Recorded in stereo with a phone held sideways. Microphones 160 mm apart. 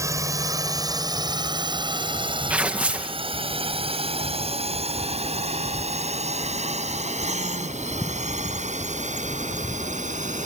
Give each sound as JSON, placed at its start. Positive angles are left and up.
{"t": 0.0, "sound": "a drone", "side_deg": -20}
{"t": 2.5, "sound": "tearing paper", "side_deg": -10}